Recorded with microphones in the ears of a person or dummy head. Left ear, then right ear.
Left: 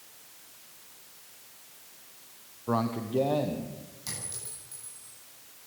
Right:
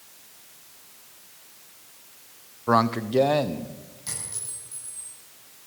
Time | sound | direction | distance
2.7 | a man speaking | 45° right (ahead or behind) | 0.9 m
4.1 | a clink | 10° left (ahead or behind) | 9.5 m